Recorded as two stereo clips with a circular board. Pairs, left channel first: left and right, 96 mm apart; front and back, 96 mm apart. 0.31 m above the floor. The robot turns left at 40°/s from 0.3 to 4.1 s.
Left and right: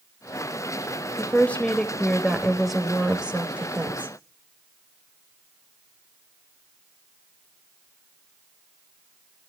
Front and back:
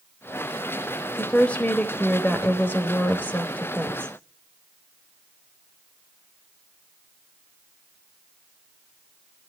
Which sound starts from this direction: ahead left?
A woman speaking, at 1.2 s.